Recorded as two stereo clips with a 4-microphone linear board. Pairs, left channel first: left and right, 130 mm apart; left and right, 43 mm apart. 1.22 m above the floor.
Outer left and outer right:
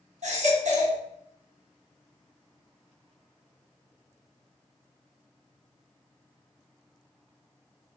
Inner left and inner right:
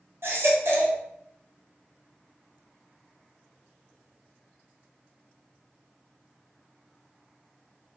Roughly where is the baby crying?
Right.